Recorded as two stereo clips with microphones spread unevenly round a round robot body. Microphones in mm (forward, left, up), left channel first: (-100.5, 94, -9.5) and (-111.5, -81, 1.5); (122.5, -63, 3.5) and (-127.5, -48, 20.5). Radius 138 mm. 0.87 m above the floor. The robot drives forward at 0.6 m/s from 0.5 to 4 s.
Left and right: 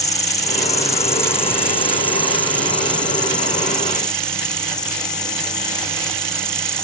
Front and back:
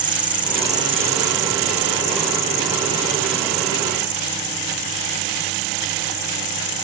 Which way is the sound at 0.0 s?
120° left.